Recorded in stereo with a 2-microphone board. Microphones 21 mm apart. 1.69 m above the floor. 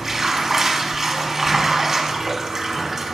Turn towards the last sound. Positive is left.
turn(degrees=-15)  # may be behind; listen again after turning